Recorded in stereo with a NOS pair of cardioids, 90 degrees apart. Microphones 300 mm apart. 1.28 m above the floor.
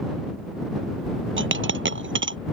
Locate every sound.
1.4 s a dropped coin: 40° right